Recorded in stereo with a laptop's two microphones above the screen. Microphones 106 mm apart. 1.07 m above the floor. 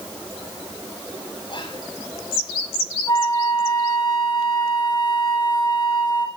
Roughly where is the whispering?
Left.